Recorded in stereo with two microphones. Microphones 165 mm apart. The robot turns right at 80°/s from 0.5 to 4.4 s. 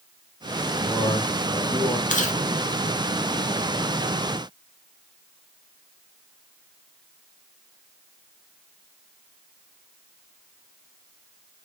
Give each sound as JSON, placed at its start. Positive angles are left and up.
{"t": 0.8, "sound": "a man speaking", "azimuth_deg": 0, "distance_m": 1.5}
{"t": 2.1, "sound": "chewing", "side_deg": 50, "distance_m": 0.6}